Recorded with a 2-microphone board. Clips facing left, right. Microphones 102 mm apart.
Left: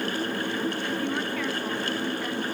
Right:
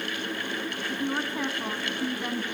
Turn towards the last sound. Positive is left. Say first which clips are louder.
# left 1 dB
turn(degrees=-20)  # may be behind; listen again after turning